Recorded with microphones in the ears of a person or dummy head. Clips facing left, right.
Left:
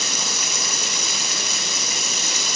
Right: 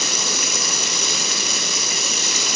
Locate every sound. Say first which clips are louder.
0.0 s running water: right 4 dB; 60° right (ahead or behind), 1.9 m